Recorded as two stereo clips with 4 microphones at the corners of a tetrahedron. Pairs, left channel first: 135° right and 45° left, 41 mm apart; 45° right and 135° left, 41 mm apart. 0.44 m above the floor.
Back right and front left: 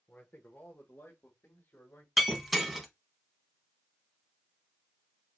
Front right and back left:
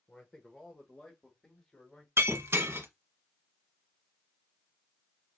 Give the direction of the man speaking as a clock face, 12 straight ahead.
4 o'clock.